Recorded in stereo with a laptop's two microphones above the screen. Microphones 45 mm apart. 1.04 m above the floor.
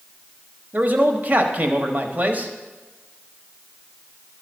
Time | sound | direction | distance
0.7 | a man speaking | 40° right (ahead or behind) | 0.8 m